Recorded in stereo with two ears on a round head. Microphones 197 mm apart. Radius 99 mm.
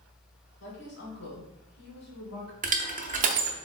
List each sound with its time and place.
0.6 s a woman speaking: 50° left (ahead or behind), 1.9 m
2.6 s crushing: 35° right (ahead or behind), 0.5 m